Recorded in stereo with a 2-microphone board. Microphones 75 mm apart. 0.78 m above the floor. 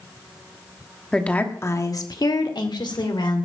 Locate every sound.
1.1 s a woman speaking: 10° left (ahead or behind), 1.3 m; by 3.5 s 80° left, 2.5 m